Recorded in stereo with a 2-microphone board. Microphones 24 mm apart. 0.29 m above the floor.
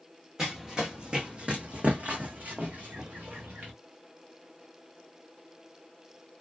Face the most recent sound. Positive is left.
turn(degrees=-75)  # may be behind; listen again after turning